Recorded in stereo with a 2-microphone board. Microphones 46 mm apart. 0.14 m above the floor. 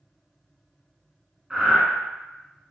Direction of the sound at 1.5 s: 10° right (ahead or behind).